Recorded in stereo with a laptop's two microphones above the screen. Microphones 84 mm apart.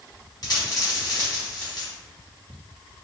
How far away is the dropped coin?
About 1.5 m.